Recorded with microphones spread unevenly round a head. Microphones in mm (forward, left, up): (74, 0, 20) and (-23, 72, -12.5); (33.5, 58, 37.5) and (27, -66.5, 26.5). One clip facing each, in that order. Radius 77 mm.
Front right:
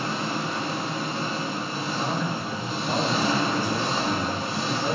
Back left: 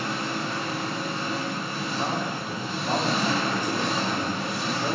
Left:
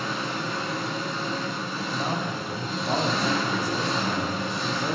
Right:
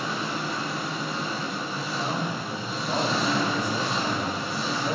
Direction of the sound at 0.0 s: 5° right.